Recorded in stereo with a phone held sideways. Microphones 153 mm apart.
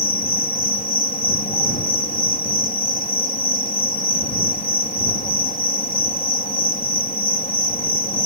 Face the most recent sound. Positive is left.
turn(degrees=70)  # may be behind; listen again after turning